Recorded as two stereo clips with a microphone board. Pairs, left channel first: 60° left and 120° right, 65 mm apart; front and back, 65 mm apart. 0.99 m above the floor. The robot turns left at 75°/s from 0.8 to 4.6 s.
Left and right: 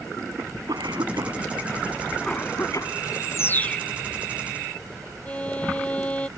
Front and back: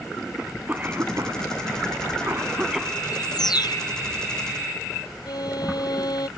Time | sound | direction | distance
0.4 | a cough | 115° right | ?
3.0 | a bird | 40° left | ?
5.2 | a violin | 10° right | ?